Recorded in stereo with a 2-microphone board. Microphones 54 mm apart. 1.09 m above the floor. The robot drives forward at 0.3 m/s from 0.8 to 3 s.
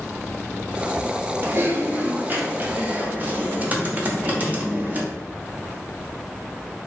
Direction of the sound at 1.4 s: 45° right (ahead or behind).